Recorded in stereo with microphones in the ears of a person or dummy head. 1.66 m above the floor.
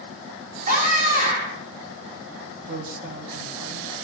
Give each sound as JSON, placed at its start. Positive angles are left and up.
{"t": 0.7, "sound": "a scream", "side_deg": -35, "distance_m": 5.0}
{"t": 2.7, "sound": "a man speaking", "side_deg": -60, "distance_m": 2.0}